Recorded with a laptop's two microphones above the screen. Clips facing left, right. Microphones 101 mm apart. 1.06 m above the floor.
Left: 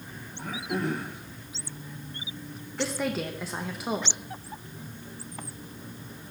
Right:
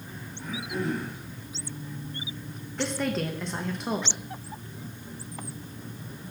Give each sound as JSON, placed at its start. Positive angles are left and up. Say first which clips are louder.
{"t": 0.4, "sound": "throat clearing", "louder": "left 1 dB", "side_deg": 60, "distance_m": 1.3}
{"t": 2.8, "sound": "a woman speaking", "louder": "right 1 dB", "side_deg": 5, "distance_m": 0.7}